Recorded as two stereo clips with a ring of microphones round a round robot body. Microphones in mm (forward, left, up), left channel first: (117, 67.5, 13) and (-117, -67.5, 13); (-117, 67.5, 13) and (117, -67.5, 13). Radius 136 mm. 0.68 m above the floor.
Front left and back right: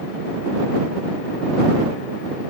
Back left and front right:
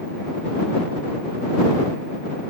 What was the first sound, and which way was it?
Only background noise.